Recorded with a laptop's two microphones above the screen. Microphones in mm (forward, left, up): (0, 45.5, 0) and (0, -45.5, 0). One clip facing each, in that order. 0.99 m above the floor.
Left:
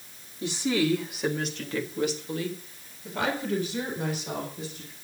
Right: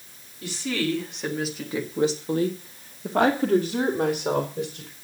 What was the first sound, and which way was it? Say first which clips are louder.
A woman speaking: left 2 dB; 25° left (ahead or behind).